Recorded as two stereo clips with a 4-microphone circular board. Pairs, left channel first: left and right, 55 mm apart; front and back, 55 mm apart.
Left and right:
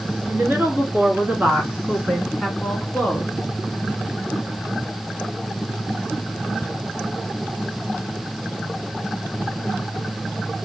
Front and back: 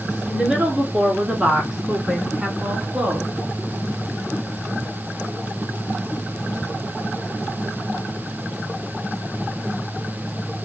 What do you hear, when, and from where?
0.3 s a woman speaking: 110° right, 1.6 m; by 3.3 s 120° left, 1.1 m